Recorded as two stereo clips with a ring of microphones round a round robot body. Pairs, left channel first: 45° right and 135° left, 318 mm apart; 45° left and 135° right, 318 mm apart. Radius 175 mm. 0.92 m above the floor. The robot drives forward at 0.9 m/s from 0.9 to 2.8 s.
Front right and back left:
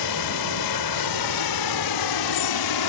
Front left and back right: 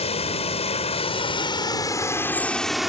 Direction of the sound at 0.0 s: 25° right.